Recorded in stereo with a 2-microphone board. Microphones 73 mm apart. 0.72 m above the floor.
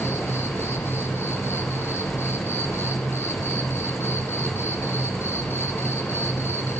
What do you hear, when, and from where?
0.0 s an insect: 35° left (ahead or behind), 1.6 m